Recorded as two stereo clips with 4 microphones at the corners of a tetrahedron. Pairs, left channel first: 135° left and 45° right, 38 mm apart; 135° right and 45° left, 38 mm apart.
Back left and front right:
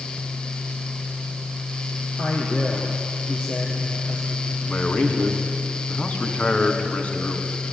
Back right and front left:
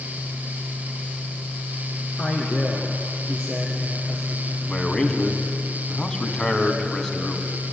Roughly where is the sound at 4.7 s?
Behind.